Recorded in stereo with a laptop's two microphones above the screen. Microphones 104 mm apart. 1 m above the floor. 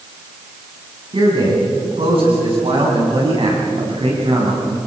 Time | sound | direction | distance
1.1 | a man speaking | 65° right (ahead or behind) | 9.5 m